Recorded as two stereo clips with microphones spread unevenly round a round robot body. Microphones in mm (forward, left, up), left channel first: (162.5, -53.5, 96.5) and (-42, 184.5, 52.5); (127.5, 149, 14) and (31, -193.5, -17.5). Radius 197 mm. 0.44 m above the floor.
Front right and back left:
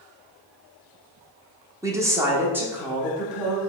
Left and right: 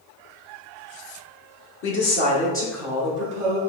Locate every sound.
1.8 s a woman speaking: 75° left, 0.8 m; by 3.6 s 150° right, 1.0 m